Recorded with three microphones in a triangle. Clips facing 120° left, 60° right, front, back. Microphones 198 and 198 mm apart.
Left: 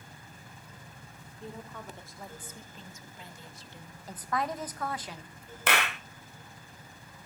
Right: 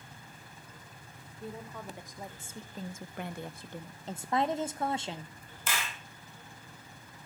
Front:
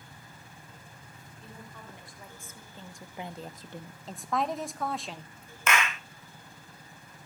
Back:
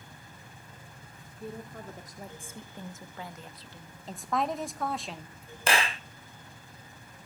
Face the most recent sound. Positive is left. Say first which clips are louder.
# left 8 dB, back 1 dB
turn(degrees=125)